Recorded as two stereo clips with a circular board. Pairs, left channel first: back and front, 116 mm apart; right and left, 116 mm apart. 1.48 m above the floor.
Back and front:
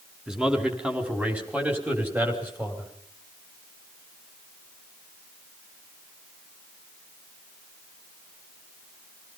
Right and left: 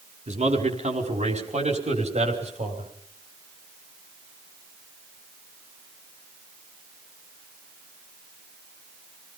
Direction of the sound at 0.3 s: 85° left.